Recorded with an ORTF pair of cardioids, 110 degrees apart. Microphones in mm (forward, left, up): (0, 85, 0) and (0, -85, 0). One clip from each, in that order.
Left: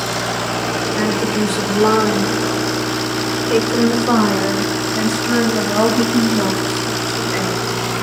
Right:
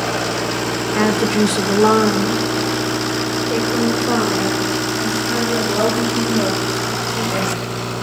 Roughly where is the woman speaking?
Ahead right.